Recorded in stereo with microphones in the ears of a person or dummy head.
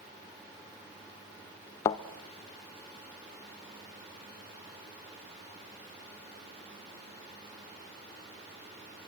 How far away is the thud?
About 0.7 m.